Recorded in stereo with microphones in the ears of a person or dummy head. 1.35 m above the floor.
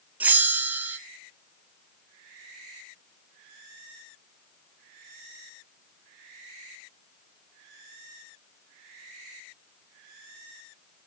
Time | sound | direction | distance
0.2 | a bell | 10° right (ahead or behind) | 0.5 m